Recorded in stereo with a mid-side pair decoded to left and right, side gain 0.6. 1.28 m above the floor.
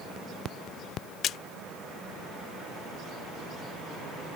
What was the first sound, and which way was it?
A splash, 55° left.